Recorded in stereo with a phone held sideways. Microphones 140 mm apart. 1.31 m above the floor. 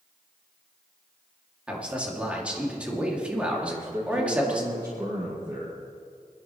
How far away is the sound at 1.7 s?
About 2.5 m.